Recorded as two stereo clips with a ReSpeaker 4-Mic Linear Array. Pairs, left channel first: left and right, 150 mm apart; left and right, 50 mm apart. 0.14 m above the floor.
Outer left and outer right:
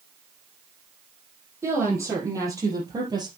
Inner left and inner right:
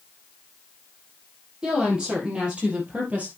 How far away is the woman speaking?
About 5 m.